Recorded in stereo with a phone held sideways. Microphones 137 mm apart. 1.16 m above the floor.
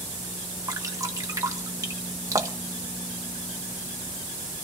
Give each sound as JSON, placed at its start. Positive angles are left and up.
{"t": 0.7, "sound": "dripping", "side_deg": -25, "distance_m": 1.3}